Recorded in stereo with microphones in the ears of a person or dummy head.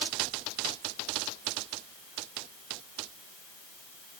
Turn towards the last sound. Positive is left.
No sound to turn to.